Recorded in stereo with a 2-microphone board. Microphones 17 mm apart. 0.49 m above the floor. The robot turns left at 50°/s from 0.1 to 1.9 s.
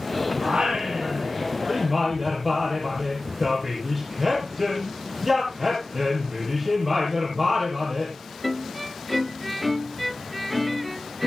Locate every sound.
0.4 s singing: 100° right, 6.5 m; by 8.2 s 175° right, 6.5 m